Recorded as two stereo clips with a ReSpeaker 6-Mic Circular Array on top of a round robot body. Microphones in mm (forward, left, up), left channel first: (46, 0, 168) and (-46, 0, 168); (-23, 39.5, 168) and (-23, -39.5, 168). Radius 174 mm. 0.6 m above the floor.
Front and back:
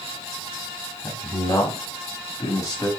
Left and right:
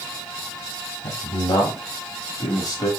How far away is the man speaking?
About 5.5 m.